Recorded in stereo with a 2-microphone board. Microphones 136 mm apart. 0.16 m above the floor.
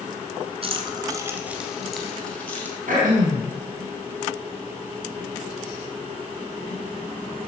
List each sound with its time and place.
0.6 s keys jangling: 45° right (ahead or behind), 1.3 m; by 2.8 s 10° left (ahead or behind), 3 m
2.9 s throat clearing: 70° right (ahead or behind), 4.5 m